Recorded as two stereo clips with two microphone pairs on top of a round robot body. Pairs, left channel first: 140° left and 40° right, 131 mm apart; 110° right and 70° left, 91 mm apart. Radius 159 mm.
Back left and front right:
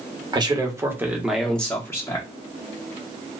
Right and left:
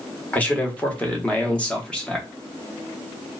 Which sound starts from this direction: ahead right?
A man speaking, at 0.3 s.